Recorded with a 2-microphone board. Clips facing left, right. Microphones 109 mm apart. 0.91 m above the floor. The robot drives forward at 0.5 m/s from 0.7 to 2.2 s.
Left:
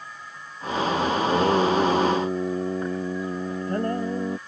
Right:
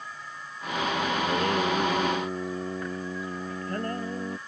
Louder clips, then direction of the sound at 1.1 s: Left 7 dB; 25° left (ahead or behind).